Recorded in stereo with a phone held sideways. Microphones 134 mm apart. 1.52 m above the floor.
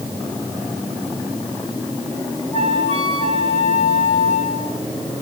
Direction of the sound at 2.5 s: 45° right (ahead or behind).